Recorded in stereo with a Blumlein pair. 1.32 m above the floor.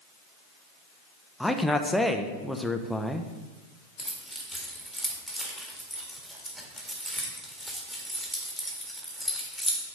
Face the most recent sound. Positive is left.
turn(degrees=-5)